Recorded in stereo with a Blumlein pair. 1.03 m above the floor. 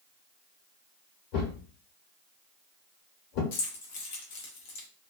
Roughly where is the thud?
Ahead left.